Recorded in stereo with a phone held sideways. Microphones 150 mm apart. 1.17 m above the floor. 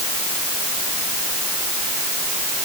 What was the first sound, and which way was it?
Only background noise.